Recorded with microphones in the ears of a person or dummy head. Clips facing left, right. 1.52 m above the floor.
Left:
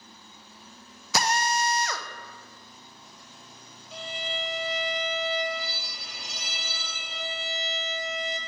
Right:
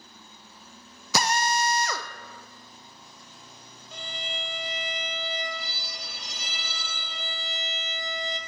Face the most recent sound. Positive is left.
turn(degrees=0)  # may be behind; listen again after turning